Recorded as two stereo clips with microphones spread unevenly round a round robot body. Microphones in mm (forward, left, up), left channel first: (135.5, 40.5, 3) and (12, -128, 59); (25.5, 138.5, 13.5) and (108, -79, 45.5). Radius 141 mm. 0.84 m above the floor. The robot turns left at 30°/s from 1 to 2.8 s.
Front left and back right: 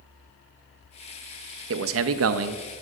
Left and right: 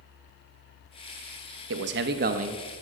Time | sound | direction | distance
1.7 | a man speaking | 105° right | 0.8 m